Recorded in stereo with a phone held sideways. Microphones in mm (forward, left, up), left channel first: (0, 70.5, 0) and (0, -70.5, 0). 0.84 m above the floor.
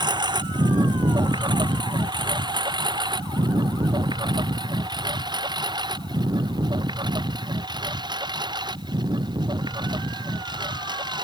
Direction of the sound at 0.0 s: 30° right (ahead or behind).